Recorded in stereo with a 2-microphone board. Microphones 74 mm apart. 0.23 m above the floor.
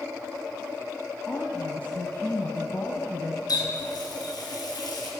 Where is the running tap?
65° left (ahead or behind), 2.5 m.